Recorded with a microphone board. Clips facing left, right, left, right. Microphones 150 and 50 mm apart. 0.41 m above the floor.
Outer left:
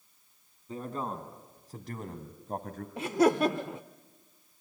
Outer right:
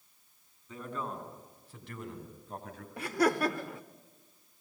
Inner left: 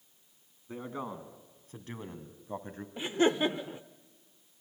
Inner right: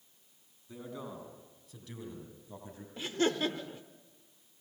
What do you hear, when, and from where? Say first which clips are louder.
0.7 s a man speaking: outer left 3 dB, inner left 4 dB; 35° left (ahead or behind), 3.5 m; by 2.9 s 45° left (ahead or behind), 2.5 m
3.0 s laughter: outer left 4 dB, inner left 4 dB; 20° left (ahead or behind), 0.7 m